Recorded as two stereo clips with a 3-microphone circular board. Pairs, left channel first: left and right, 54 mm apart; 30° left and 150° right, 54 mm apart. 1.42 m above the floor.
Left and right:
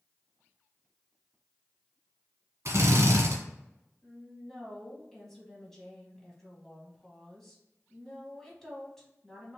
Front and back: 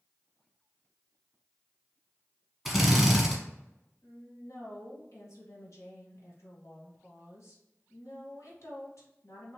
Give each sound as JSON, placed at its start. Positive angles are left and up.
{"t": 2.6, "sound": "a drill", "azimuth_deg": -60, "distance_m": 1.3}
{"t": 4.0, "sound": "a woman speaking", "azimuth_deg": 5, "distance_m": 2.0}